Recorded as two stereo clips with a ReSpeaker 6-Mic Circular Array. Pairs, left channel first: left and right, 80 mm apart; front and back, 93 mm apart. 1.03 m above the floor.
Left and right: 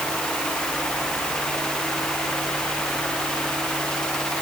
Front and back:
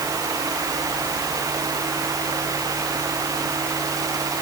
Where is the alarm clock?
No alarm clock in this recording.